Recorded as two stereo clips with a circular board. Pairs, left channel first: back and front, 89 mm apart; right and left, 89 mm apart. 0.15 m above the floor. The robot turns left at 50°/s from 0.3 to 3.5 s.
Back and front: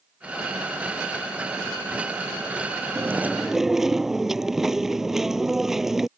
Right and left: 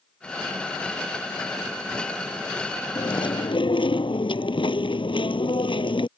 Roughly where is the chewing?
Ahead right.